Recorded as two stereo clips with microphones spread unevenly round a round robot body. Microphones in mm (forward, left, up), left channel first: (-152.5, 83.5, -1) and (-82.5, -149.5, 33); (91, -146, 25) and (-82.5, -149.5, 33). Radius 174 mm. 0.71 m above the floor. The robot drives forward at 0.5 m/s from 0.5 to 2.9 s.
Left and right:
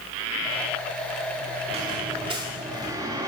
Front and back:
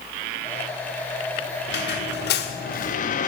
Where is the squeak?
5° left, 1.0 m; by 3.3 s 10° left, 0.5 m.